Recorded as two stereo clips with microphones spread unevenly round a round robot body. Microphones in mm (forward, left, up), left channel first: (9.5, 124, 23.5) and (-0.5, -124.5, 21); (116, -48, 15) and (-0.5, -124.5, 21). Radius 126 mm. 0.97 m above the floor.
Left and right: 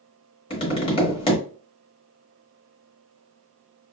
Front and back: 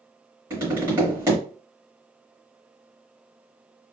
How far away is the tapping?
About 0.9 m.